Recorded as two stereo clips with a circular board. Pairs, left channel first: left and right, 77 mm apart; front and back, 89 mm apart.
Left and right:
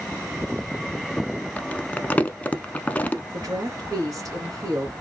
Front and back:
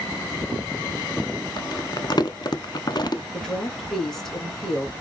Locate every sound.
1.6 s crumpling: 25° left, 0.6 m
3.3 s a woman speaking: 85° right, 2.5 m